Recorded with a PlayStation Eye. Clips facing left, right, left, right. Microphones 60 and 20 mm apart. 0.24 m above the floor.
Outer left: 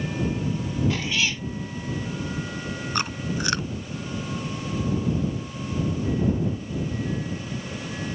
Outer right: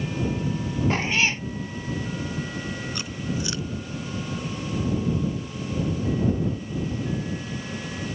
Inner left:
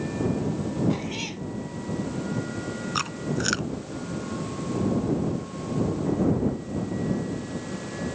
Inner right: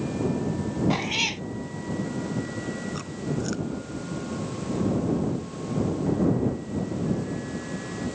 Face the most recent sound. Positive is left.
turn(degrees=60)  # may be behind; listen again after turning